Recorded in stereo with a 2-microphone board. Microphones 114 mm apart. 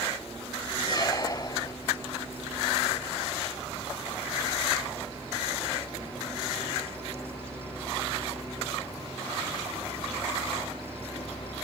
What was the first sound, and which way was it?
A squeak, 35° left (ahead or behind).